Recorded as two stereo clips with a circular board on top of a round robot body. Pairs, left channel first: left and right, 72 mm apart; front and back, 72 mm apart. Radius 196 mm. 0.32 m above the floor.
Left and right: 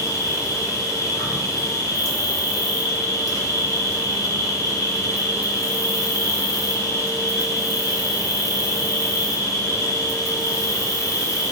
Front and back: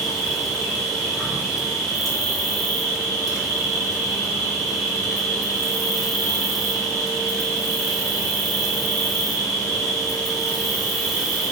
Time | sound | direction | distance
0.0 | an insect | 90° left | 1.5 m